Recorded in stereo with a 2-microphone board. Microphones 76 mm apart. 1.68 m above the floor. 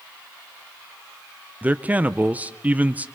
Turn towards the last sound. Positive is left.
turn(degrees=-20)  # may be behind; listen again after turning